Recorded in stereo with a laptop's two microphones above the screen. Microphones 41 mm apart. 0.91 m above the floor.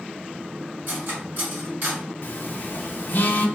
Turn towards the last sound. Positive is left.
turn(degrees=55)  # may be behind; listen again after turning